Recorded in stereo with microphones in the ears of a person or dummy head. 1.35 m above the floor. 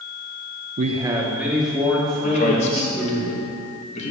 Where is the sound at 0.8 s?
40° right (ahead or behind), 0.5 m; by 3.2 s 10° left (ahead or behind), 4 m.